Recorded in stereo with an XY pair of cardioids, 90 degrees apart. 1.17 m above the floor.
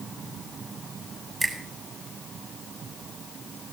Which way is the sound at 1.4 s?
35° right.